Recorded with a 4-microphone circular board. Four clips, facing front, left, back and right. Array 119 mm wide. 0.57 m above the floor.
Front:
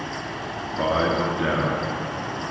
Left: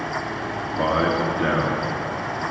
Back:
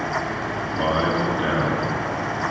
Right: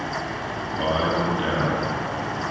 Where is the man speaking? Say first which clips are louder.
Left 2 dB, even; 75° left, 0.7 m.